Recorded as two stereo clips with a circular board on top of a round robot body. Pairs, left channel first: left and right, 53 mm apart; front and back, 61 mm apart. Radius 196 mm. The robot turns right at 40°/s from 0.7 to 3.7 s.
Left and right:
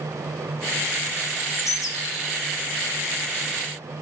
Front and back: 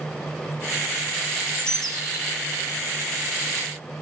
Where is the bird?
60° left, 2.5 m; by 2.4 s 105° left, 2.5 m.